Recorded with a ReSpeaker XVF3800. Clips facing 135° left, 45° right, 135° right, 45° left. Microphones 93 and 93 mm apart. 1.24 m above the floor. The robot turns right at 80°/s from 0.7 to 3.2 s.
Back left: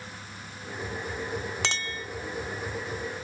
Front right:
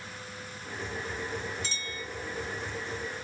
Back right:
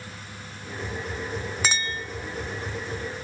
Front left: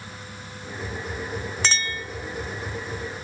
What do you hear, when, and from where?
1.6 s a clink: 140° left, 1.0 m; by 2.0 s 175° left, 1.0 m